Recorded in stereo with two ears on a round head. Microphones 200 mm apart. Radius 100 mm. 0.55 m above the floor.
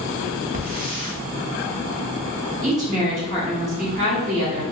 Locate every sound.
0.5 s a hiss: 40° right (ahead or behind), 0.7 m
2.6 s a woman speaking: 35° right (ahead or behind), 1.2 m